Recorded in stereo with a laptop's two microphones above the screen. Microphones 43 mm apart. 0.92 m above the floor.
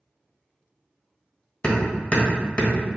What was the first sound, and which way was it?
Hammering, 30° left (ahead or behind).